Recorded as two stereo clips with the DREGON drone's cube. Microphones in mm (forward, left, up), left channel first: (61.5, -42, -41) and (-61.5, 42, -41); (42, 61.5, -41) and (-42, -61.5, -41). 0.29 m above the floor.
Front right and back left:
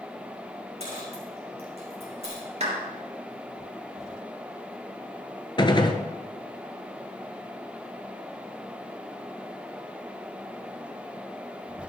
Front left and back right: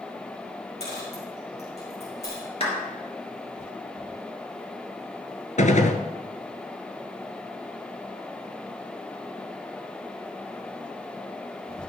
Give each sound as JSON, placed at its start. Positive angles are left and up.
{"t": 0.8, "sound": "a dropped coin", "azimuth_deg": 100, "distance_m": 5.0}
{"t": 2.6, "sound": "a clap", "azimuth_deg": 105, "distance_m": 3.5}
{"t": 5.6, "sound": "a gunshot", "azimuth_deg": 20, "distance_m": 1.0}